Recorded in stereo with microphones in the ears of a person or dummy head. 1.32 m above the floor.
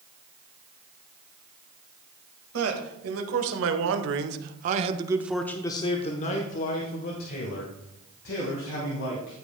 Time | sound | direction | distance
2.5 | a man speaking | 75° right (ahead or behind) | 1.7 m